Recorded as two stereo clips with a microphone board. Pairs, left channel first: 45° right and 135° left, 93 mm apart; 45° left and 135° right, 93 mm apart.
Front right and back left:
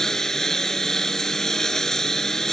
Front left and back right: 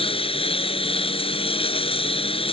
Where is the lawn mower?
40° left.